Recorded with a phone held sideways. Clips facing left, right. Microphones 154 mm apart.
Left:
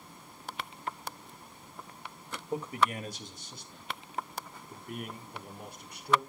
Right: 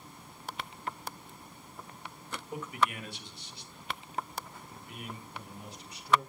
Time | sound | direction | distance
2.5 | a man speaking | 35° left (ahead or behind) | 1.9 m